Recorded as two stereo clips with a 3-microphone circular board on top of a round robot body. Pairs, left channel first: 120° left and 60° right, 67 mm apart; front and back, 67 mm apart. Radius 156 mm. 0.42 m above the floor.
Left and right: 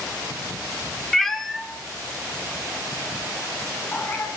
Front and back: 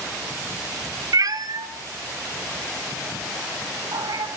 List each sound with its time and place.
1.1 s a cat meowing: 155° right, 1.3 m; by 4.3 s 170° right, 3.5 m